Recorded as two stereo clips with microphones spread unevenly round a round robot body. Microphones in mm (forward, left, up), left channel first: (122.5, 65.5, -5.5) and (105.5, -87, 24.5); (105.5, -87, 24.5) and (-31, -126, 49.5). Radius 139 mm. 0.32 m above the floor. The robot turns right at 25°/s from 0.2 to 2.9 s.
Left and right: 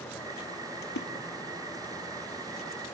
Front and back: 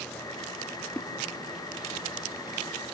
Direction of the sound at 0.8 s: 100° left.